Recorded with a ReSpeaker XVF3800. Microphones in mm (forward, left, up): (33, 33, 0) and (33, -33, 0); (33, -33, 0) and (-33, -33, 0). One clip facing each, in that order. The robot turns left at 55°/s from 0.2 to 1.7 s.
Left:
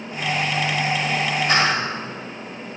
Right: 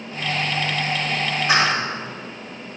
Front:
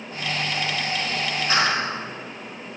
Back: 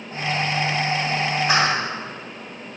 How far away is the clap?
About 6 m.